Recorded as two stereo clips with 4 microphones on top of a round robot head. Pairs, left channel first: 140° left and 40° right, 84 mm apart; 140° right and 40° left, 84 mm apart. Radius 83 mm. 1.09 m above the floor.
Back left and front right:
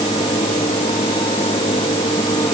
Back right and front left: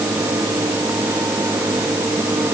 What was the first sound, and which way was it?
Only background noise.